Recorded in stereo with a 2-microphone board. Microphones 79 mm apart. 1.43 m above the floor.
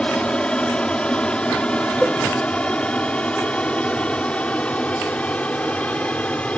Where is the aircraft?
15° left (ahead or behind).